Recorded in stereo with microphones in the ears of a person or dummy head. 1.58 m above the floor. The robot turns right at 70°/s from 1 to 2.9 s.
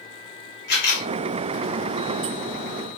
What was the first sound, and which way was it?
A camera shutter, 60° left (ahead or behind).